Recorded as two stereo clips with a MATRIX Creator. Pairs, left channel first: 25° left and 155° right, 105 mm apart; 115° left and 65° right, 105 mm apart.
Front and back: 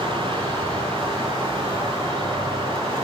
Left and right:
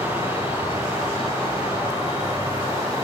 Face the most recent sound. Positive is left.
turn(degrees=-110)